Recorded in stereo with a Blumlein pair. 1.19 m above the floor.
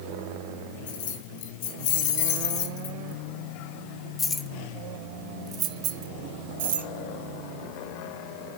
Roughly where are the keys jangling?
Ahead left.